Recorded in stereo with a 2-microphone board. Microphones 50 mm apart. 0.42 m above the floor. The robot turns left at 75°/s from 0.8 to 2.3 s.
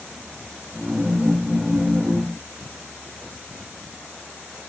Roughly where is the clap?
No clap in this recording.